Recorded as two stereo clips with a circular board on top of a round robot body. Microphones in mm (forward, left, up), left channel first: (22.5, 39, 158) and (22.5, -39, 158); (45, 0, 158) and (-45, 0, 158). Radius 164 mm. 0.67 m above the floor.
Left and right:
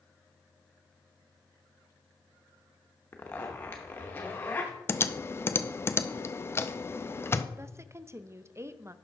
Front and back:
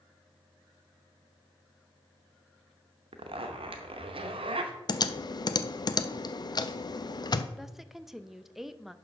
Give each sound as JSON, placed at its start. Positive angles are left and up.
{"t": 3.1, "sound": "a zipper", "azimuth_deg": 155, "distance_m": 0.7}
{"t": 4.9, "sound": "typing on a keyboard", "azimuth_deg": 35, "distance_m": 0.6}
{"t": 7.6, "sound": "a woman speaking", "azimuth_deg": -95, "distance_m": 0.7}